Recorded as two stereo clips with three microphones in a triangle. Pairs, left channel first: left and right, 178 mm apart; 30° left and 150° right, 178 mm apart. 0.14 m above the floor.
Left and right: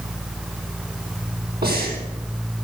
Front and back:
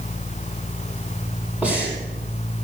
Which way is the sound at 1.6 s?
70° right.